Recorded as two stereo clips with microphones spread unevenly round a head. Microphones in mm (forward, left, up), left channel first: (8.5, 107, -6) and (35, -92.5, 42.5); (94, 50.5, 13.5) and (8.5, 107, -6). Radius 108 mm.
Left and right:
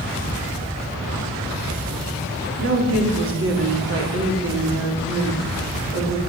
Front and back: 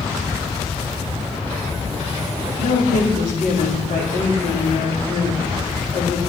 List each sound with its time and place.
2.6 s a woman speaking: 50° right, 2.5 m